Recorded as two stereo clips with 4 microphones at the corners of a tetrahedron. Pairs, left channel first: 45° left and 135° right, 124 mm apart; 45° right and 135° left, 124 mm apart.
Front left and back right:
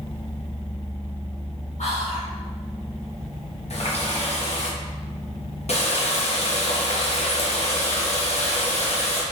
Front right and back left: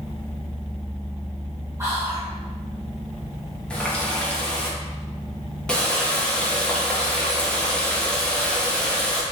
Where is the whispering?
65° left, 1.6 m.